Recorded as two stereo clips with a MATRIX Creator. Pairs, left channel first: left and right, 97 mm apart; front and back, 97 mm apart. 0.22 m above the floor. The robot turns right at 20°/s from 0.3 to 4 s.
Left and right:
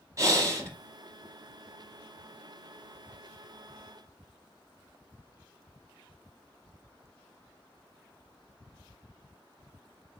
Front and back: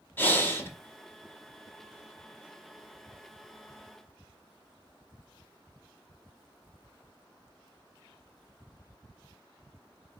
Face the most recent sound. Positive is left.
turn(degrees=15)